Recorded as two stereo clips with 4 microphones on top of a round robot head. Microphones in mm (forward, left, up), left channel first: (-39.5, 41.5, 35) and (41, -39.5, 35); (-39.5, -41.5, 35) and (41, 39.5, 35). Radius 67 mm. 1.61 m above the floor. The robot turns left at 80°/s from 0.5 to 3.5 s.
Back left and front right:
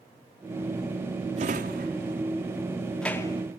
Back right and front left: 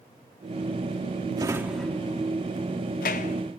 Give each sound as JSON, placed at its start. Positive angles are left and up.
{"t": 1.4, "sound": "a drawer", "azimuth_deg": -10, "distance_m": 2.0}